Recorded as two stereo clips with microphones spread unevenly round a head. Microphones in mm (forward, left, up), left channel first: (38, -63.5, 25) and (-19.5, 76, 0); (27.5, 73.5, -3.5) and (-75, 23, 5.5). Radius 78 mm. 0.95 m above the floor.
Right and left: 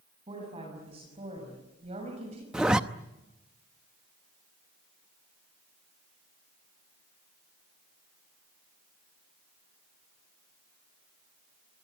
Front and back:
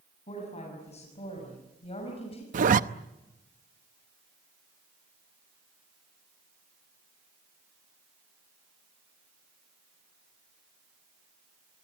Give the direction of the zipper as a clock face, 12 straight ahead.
5 o'clock.